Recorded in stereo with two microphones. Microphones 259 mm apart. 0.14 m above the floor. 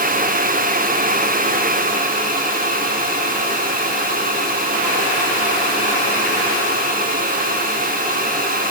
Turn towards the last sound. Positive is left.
No sound to turn to.